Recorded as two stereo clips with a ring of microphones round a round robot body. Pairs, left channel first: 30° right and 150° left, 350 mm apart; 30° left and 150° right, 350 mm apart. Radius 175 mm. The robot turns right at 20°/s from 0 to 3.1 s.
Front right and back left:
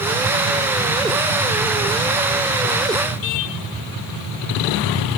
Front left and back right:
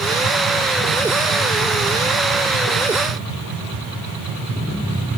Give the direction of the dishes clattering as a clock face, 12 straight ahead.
I don't hear dishes clattering.